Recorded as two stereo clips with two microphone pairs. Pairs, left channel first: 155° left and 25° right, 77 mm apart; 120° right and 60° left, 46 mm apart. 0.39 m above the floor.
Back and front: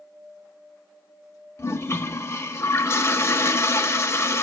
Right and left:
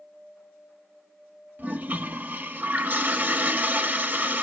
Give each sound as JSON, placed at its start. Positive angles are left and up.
{"t": 1.6, "sound": "a toilet flushing", "azimuth_deg": 105, "distance_m": 0.5}